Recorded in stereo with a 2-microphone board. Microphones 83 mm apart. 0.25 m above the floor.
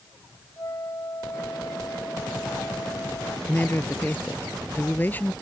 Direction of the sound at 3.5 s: 25° left (ahead or behind).